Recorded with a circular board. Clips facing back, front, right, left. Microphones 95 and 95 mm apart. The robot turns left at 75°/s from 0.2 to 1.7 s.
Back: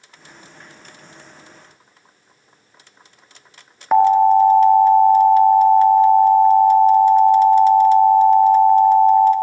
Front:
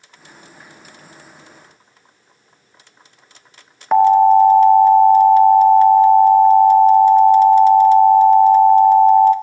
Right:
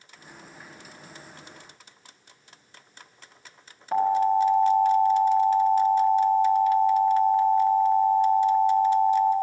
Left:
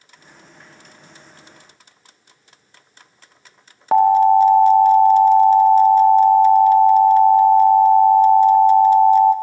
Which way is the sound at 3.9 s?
90° left.